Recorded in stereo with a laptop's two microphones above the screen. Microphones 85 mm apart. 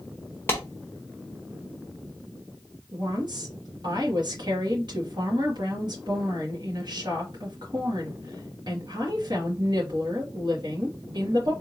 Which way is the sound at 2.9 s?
60° right (ahead or behind).